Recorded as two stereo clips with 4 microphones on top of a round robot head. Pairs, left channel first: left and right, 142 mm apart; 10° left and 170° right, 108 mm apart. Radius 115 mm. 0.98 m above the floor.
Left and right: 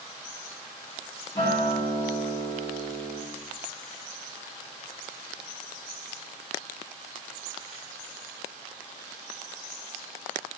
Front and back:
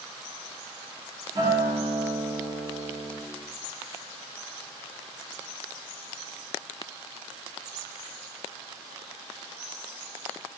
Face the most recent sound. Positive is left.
turn(degrees=155)